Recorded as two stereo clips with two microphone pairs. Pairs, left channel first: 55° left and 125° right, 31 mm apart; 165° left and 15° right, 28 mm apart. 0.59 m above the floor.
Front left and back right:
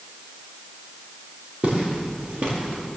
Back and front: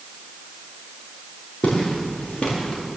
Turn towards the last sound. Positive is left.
turn(degrees=-145)